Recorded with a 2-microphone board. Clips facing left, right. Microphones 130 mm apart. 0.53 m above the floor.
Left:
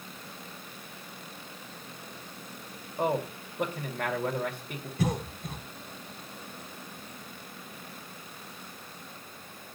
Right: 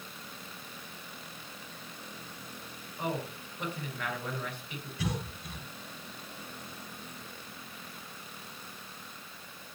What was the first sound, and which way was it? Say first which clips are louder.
A man speaking: left 6 dB; 60° left (ahead or behind).